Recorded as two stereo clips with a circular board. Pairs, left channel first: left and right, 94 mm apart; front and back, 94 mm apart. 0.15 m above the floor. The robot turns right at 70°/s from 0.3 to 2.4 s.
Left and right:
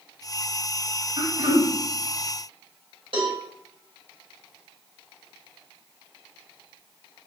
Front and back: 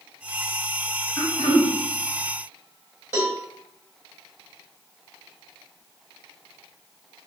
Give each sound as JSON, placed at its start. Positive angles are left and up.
{"t": 1.2, "sound": "throat clearing", "azimuth_deg": -55, "distance_m": 0.8}
{"t": 3.1, "sound": "a cowbell", "azimuth_deg": -110, "distance_m": 1.4}